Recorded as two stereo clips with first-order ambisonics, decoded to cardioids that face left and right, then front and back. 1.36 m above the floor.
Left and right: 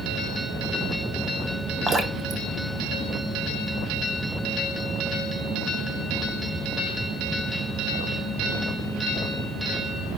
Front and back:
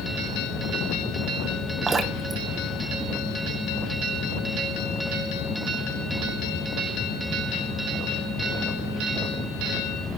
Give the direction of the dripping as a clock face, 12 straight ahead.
4 o'clock.